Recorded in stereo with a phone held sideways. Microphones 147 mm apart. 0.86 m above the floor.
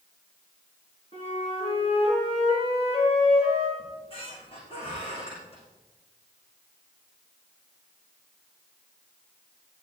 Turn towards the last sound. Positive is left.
turn(degrees=40)  # may be behind; listen again after turning